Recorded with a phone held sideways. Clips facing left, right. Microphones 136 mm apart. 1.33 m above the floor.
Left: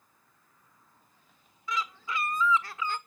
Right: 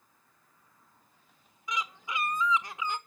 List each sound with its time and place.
1.7 s a bird: 20° right (ahead or behind), 1.1 m